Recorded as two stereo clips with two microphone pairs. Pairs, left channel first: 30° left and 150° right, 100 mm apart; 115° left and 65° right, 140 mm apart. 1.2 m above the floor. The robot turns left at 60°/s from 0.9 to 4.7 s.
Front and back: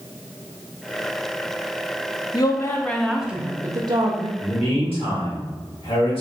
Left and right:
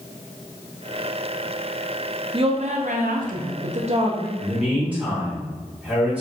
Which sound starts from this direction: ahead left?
A man speaking, at 4.4 s.